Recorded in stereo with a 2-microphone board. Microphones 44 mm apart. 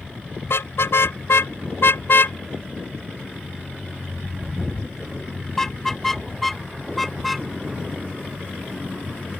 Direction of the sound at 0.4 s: 65° left (ahead or behind).